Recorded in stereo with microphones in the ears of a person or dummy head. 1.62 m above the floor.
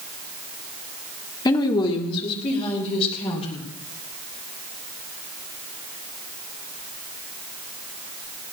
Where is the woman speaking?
25° left (ahead or behind), 1.6 m; by 3.6 s 35° left (ahead or behind), 5 m.